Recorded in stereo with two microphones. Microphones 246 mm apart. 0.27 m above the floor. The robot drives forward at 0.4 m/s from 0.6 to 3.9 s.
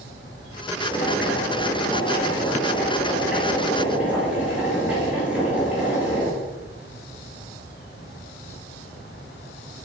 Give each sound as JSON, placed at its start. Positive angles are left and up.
{"t": 0.9, "sound": "boiling", "side_deg": -10, "distance_m": 2.5}